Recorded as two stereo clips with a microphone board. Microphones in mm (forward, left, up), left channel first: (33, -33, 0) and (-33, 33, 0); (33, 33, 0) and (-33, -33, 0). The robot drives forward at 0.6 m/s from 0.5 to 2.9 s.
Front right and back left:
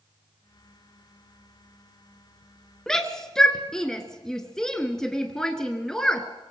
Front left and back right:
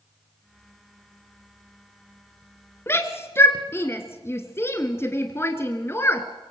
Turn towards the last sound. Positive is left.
turn(degrees=30)